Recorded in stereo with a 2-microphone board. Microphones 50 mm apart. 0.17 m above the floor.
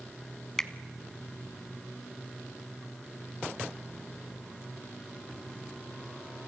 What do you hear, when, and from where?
0.6 s a finger snap: 15° left (ahead or behind), 0.9 m